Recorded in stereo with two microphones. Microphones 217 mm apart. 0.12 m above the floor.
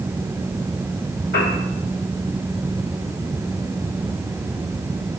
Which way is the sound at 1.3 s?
75° left (ahead or behind).